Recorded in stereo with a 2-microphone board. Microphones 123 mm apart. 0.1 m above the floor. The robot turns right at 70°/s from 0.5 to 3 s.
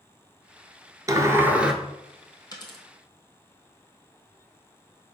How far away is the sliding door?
About 0.7 m.